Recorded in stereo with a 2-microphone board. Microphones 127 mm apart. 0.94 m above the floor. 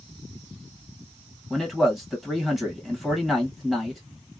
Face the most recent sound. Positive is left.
turn(degrees=0)  # may be behind; listen again after turning